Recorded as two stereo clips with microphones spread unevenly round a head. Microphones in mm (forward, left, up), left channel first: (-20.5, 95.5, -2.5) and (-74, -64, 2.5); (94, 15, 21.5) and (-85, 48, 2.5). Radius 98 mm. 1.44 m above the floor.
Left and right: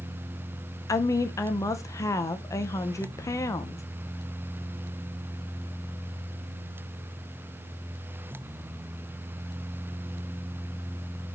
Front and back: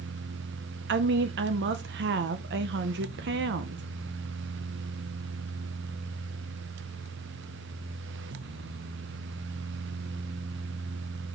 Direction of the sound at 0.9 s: 145° left.